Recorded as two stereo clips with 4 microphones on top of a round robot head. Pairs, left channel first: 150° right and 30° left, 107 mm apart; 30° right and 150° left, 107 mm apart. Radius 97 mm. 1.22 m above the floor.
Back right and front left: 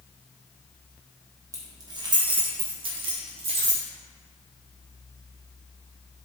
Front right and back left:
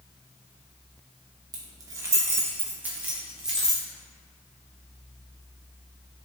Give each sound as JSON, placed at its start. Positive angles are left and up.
{"t": 1.5, "sound": "keys jangling", "azimuth_deg": 95, "distance_m": 1.7}